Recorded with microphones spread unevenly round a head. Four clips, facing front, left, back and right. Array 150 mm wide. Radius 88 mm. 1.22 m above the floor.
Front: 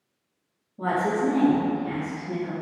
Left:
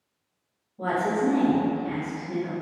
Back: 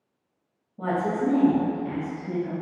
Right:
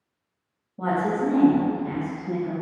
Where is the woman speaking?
90° right, 1.6 m; by 2.5 s 140° right, 1.0 m.